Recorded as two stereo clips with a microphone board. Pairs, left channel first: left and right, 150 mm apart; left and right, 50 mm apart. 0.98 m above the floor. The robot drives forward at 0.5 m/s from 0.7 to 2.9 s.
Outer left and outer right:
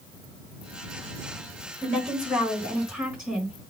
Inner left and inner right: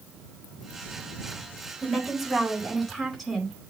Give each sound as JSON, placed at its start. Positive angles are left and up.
{"t": 1.8, "sound": "a woman speaking", "side_deg": -10, "distance_m": 4.0}